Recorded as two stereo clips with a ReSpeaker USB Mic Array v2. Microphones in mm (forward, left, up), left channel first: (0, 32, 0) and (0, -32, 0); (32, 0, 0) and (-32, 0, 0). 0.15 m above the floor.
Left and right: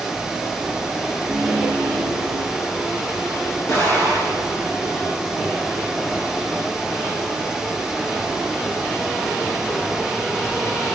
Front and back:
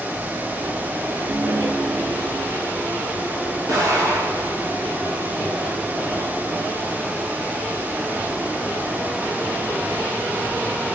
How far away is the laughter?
About 4.5 m.